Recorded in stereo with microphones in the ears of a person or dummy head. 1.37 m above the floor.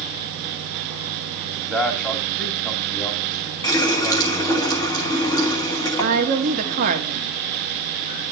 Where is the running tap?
20° left (ahead or behind), 1.3 m.